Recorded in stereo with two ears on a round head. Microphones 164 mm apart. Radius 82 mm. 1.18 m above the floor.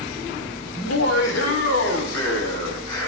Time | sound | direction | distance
0.8 | laughter | 80° left | 6 m